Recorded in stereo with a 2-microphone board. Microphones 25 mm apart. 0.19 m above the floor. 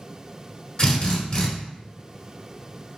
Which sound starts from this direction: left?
A drill, at 0.8 s.